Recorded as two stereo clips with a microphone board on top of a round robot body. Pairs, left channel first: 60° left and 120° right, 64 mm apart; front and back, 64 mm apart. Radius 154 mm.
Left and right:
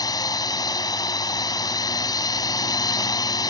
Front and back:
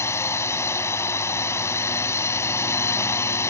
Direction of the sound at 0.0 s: 50° left.